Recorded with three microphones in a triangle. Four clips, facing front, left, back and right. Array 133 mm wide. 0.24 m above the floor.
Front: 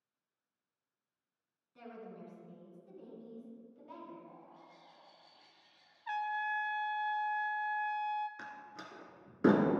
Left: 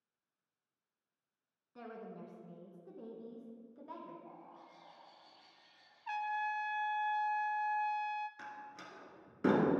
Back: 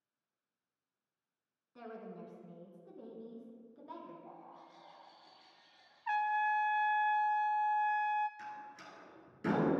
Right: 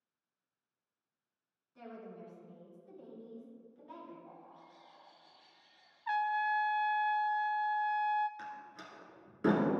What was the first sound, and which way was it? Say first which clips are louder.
A woman speaking: even, back 2 dB; 120° left.